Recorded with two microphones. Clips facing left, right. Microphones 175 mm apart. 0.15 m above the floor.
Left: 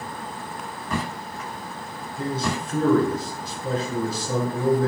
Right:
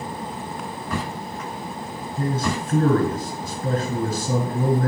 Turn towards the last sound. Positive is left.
turn(degrees=-40)  # may be behind; listen again after turning